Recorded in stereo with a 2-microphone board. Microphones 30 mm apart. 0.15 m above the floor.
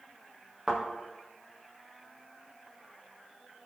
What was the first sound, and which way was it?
A thud, 20° right (ahead or behind).